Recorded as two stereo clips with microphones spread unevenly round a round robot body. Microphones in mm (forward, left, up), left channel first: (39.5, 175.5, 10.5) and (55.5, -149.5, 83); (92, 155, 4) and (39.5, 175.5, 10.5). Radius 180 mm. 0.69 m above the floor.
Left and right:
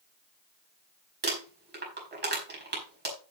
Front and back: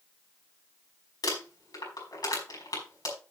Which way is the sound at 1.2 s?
25° right.